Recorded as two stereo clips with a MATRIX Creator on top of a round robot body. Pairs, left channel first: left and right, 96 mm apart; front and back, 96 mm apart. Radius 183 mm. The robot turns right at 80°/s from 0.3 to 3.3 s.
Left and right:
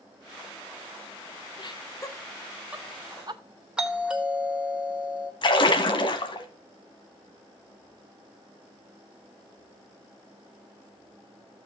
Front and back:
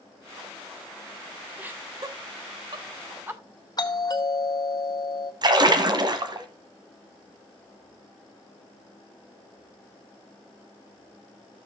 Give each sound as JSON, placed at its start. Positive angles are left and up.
{"t": 1.6, "sound": "laughter", "azimuth_deg": 105, "distance_m": 1.2}
{"t": 3.8, "sound": "a doorbell", "azimuth_deg": -15, "distance_m": 1.9}
{"t": 5.4, "sound": "a splash", "azimuth_deg": 130, "distance_m": 1.1}